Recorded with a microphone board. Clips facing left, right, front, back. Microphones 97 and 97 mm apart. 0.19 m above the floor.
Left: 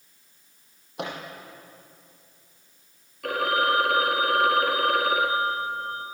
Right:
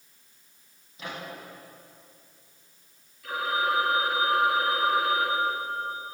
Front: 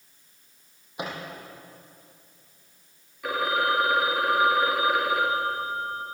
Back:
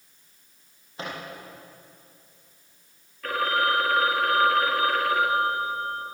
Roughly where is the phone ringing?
Left.